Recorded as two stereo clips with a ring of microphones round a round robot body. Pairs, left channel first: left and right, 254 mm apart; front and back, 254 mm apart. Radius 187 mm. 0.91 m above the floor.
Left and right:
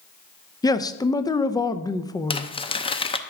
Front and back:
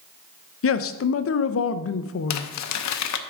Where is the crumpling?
15° left, 0.7 m.